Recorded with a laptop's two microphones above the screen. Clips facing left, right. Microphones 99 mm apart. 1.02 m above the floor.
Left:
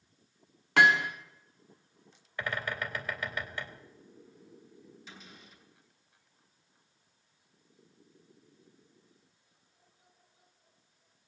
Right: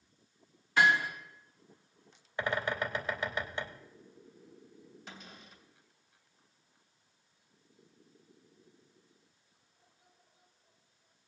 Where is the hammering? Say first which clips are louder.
Left 3 dB; 75° left (ahead or behind), 1.6 m.